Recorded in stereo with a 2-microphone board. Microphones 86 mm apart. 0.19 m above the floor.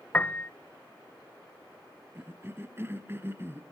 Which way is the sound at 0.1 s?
20° left (ahead or behind).